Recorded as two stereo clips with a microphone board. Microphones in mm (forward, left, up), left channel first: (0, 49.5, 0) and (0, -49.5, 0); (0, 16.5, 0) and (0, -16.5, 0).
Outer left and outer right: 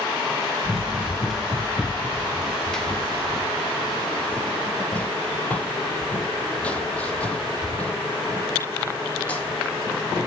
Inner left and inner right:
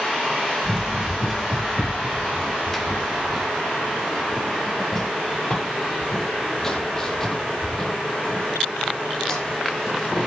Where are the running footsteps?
5° right (ahead or behind), 1.6 m; by 10.2 s 15° left (ahead or behind), 5.5 m.